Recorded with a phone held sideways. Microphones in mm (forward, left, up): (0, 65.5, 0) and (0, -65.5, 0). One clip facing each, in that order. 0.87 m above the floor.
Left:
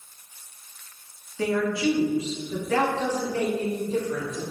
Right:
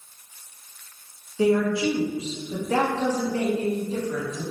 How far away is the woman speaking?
About 0.7 m.